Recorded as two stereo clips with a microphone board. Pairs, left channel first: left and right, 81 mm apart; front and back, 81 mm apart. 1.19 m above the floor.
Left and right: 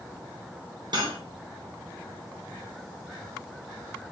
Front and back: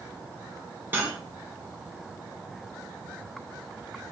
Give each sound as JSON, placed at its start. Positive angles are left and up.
{"t": 0.9, "sound": "cutlery clinking", "azimuth_deg": -115, "distance_m": 2.5}